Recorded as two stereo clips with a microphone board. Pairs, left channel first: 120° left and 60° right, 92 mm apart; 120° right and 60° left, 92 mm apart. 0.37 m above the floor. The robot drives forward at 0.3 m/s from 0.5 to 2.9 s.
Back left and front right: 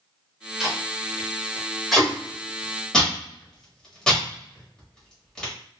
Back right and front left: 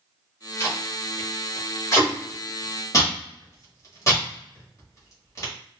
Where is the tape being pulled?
135° right, 1.1 m; by 5.5 s 160° right, 1.5 m.